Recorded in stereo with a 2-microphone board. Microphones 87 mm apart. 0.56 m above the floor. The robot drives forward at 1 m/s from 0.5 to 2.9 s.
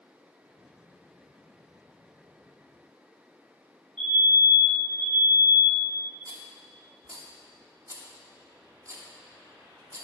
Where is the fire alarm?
10° left (ahead or behind), 2.5 m.